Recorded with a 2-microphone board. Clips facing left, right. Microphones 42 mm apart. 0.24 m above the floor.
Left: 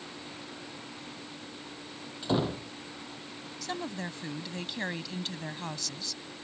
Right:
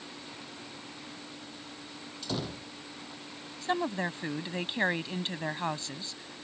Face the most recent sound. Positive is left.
turn(degrees=-30)  # may be behind; listen again after turning